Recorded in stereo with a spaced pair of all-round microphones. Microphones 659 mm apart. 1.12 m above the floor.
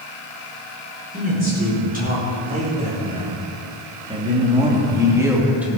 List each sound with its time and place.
1.1 s a man speaking: 15° right (ahead or behind), 4.5 m; by 5.8 s centre (ahead or behind), 2 m